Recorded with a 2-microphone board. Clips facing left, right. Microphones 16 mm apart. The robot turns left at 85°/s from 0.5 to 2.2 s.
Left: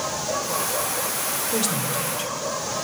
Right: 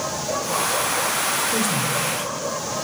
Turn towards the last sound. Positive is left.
turn(degrees=20)  # may be behind; listen again after turning